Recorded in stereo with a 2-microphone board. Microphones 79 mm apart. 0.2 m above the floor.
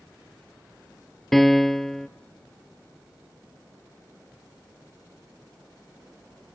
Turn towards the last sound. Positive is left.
turn(degrees=5)  # may be behind; listen again after turning